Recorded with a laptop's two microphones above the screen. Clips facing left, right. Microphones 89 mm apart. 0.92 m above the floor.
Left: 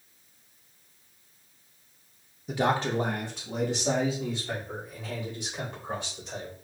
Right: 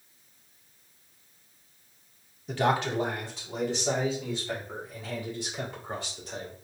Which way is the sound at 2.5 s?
5° left (ahead or behind).